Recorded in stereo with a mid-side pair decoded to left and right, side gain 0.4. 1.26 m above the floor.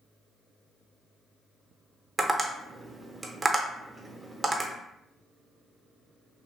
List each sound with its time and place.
2.2 s tapping: 20° right, 0.9 m